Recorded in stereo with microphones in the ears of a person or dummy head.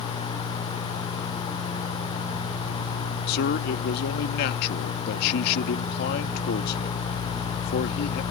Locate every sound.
3.3 s a man speaking: 55° left (ahead or behind)